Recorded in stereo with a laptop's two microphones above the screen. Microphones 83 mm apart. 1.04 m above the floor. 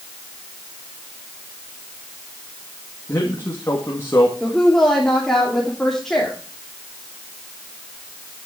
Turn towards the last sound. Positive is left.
turn(degrees=5)  # may be behind; listen again after turning